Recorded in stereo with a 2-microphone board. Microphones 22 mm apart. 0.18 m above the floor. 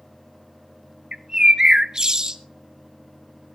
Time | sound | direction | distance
1.1 | a bird | 35° right (ahead or behind) | 0.6 m